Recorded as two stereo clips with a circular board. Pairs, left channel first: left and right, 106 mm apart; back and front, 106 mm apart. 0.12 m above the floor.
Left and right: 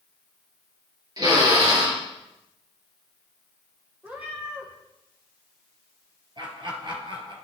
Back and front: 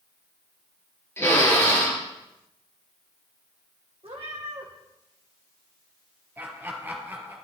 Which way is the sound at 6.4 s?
65° right.